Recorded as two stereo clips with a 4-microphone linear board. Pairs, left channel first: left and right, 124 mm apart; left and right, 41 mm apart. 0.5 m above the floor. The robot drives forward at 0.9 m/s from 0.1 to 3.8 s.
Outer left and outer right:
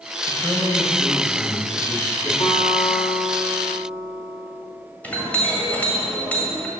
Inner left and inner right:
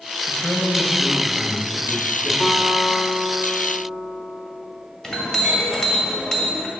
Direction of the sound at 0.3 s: 30° left (ahead or behind).